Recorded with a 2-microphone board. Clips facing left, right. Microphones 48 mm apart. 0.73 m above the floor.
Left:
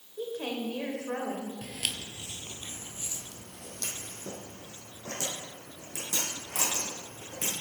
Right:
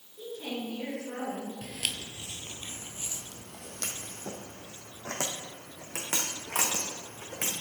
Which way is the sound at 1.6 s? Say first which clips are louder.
Even; 5° left (ahead or behind).